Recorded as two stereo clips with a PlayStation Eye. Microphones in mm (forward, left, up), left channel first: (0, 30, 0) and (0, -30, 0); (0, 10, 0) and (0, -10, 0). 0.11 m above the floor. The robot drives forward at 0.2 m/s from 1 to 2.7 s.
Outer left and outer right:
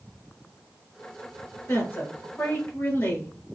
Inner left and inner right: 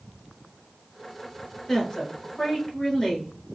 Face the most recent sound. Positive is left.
turn(degrees=40)  # may be behind; listen again after turning